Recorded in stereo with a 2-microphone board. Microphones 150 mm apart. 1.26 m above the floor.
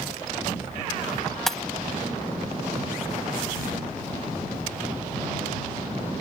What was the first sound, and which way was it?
Breaking glass, centre (ahead or behind).